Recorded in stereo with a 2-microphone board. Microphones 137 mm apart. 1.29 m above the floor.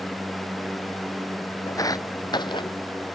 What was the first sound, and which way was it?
Footsteps, 25° left (ahead or behind).